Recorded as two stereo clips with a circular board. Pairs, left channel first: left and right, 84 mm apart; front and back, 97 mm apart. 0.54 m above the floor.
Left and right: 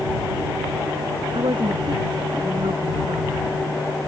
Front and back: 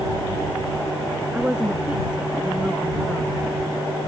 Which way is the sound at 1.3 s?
100° right.